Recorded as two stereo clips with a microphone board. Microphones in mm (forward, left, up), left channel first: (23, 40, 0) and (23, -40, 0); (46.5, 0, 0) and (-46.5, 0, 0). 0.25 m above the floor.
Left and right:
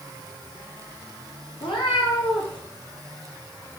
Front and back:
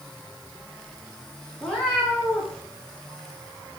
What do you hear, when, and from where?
1.6 s a cat meowing: 80° left, 8.5 m